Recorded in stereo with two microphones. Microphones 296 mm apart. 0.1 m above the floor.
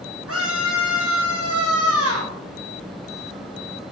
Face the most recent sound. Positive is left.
turn(degrees=-50)  # may be behind; listen again after turning